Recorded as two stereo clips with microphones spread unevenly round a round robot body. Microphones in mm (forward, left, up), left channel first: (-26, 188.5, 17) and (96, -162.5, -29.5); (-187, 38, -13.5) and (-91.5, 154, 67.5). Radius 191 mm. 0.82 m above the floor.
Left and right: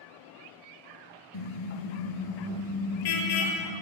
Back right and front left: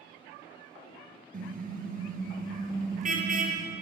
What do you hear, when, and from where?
1.3 s a car horn: 80° left, 6 m